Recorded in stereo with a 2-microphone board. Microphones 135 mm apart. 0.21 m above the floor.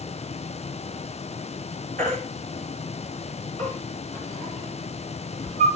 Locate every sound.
2.0 s a baby crying: 70° right (ahead or behind), 3.5 m